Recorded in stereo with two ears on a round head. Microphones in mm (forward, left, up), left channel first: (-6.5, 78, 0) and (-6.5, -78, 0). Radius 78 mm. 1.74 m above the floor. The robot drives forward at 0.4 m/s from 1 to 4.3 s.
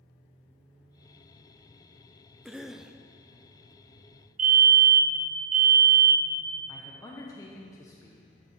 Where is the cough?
Centre (ahead or behind), 0.6 m; by 3.0 s 5° right (ahead or behind), 0.5 m.